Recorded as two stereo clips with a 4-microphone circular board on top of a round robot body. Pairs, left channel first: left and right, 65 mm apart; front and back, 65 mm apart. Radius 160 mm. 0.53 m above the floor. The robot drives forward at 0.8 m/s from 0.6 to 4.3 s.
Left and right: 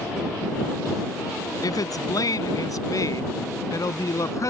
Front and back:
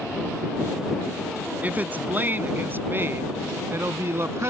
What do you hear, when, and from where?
1.6 s a woman speaking: 115° left; by 4.5 s 130° left